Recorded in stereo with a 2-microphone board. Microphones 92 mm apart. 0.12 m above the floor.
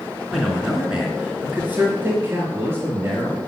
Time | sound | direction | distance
0.3 | a man speaking | centre (ahead or behind) | 1.6 m